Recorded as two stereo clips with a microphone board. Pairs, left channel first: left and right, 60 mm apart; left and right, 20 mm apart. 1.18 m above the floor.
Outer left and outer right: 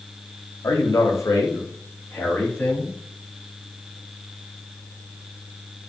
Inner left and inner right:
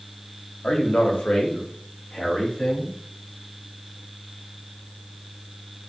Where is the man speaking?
70° left (ahead or behind), 0.9 m; by 3.0 s 15° left (ahead or behind), 1.1 m.